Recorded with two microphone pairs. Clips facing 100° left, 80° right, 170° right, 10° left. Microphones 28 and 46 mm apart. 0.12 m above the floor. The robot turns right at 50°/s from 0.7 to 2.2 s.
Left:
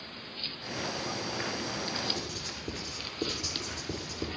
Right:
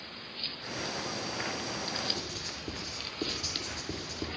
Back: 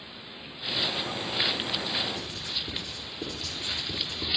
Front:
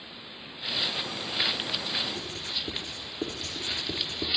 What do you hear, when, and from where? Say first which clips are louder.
2.1 s writing: left 1 dB, even; 20° right, 3.5 m